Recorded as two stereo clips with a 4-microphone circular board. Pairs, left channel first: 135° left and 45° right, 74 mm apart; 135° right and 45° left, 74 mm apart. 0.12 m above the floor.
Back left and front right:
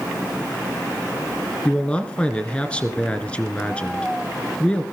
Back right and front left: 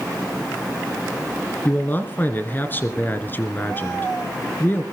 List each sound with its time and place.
1.6 s a man speaking: 165° right, 1.9 m